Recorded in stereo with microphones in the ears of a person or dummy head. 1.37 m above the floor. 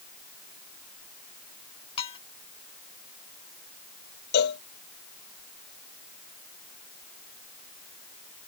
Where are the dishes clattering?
35° left (ahead or behind).